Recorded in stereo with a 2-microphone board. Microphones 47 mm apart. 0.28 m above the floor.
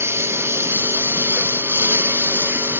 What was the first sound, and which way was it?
A lawn mower, 60° right (ahead or behind).